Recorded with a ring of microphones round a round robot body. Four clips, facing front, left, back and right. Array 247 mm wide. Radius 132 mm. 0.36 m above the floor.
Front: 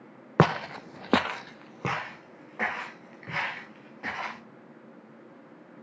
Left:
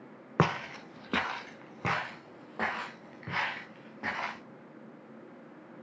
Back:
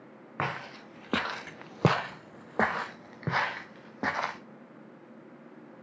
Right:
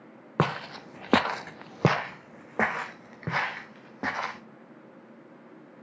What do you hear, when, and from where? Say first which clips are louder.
0.4 s footsteps: right 1 dB, front 11 dB; 5° right, 0.9 m; by 4.4 s 150° right, 3 m